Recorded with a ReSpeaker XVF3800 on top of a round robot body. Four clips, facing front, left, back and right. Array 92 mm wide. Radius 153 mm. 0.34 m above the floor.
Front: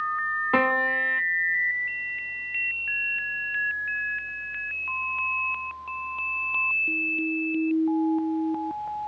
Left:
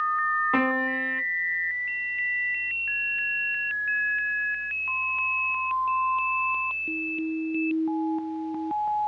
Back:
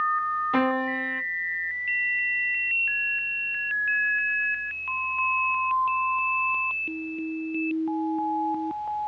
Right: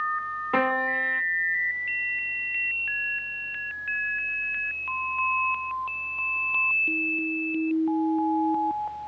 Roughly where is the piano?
Ahead.